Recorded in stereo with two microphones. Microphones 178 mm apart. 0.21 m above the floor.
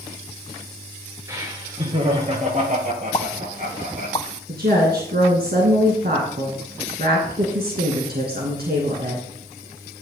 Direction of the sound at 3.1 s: 30° left (ahead or behind).